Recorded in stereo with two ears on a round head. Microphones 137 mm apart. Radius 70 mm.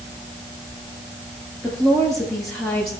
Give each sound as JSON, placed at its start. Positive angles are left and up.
{"t": 1.6, "sound": "a woman speaking", "side_deg": 0, "distance_m": 10.0}